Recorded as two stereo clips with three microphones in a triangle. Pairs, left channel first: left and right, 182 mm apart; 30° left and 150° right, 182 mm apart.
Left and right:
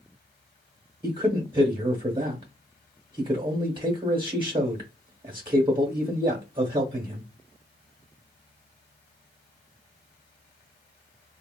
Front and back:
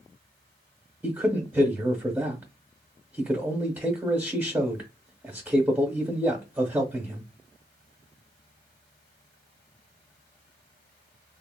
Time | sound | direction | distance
1.0 | a man speaking | 80° right | 0.8 m